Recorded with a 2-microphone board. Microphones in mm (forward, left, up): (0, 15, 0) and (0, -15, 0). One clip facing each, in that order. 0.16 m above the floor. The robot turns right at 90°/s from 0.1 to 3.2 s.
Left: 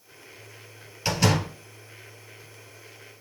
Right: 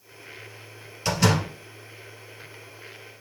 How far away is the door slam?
About 1.7 m.